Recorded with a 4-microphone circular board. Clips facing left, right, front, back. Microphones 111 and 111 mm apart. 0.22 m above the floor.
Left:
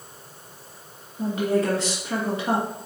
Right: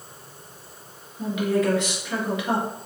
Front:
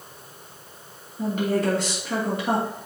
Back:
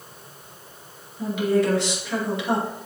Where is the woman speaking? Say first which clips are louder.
Even, back 2 dB; 40° left, 3 m.